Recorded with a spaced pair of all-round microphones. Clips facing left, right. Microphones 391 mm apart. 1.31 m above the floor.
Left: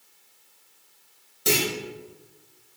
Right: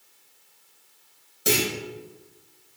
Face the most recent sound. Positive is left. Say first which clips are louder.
# right 1 dB
turn(degrees=5)  # may be behind; listen again after turning